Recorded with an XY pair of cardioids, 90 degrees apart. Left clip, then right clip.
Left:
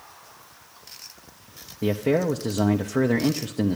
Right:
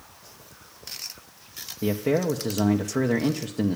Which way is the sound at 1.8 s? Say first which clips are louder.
Left 2 dB; 15° left.